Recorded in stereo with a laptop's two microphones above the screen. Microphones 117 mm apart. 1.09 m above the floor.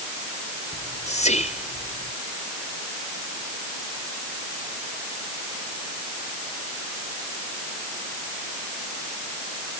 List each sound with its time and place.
0.7 s whispering: 80° left